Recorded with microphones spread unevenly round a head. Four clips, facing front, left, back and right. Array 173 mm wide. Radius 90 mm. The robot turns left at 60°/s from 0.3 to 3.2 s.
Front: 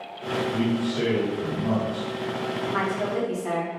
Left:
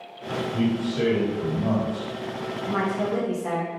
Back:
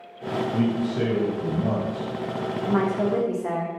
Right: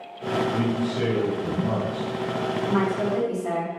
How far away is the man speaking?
About 1.8 m.